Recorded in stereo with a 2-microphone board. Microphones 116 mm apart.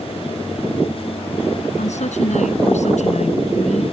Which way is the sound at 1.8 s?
85° left.